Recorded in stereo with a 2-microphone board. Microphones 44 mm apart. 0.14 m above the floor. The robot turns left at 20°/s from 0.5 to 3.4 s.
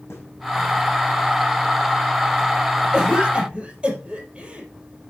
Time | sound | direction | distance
0.1 | a snare drum | 80° left | 6 m
2.9 | a cough | 10° right (ahead or behind) | 3.5 m